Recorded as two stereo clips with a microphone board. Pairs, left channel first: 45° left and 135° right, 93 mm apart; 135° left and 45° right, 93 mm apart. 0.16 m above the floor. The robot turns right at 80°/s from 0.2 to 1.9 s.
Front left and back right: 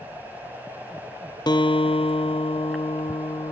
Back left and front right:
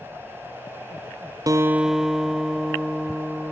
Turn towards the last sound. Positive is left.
turn(degrees=40)